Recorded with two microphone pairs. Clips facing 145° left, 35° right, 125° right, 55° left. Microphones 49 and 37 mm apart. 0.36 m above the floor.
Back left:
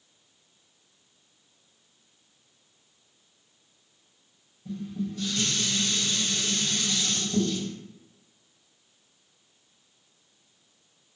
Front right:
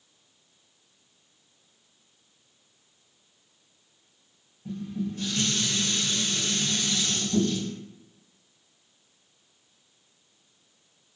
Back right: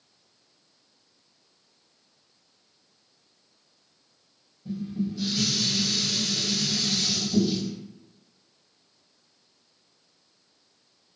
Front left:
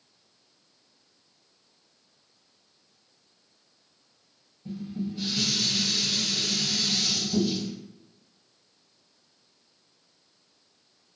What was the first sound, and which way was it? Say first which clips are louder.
Dishes clattering: front right 1 dB, back right 3 dB; 5° left.